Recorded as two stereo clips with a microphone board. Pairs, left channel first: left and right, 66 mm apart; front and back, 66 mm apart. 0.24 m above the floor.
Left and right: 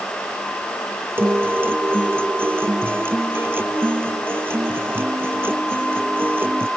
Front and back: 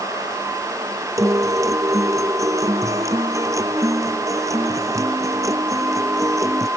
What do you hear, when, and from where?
1.2 s a guitar: 145° right